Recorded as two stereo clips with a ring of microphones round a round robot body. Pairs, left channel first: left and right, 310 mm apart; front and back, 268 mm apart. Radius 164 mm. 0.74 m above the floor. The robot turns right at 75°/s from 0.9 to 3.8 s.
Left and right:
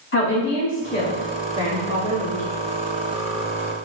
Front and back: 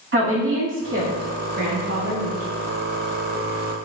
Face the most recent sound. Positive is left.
turn(degrees=0)